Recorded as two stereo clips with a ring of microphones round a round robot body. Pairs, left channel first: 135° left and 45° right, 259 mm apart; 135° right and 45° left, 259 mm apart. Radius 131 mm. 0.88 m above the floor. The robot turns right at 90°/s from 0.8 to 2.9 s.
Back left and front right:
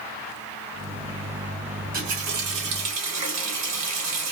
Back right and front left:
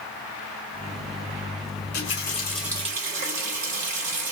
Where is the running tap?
120° right, 1.7 m; by 4.3 s 20° right, 1.7 m.